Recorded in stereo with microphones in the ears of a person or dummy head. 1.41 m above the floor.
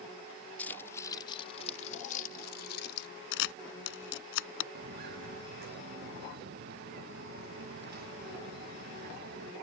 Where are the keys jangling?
10° left (ahead or behind); by 3.1 s 70° left (ahead or behind).